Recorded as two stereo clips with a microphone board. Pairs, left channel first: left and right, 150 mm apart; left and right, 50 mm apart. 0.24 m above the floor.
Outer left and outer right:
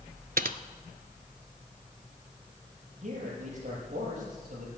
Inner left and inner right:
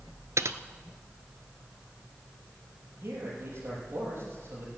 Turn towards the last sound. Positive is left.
turn(degrees=-50)  # may be behind; listen again after turning